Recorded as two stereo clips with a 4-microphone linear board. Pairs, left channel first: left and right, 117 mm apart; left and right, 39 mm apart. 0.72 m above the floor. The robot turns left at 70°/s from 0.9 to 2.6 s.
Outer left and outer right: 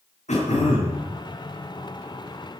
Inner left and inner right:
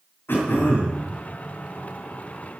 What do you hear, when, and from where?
0.3 s throat clearing: 80° left, 8 m; by 1.0 s 90° left, 8 m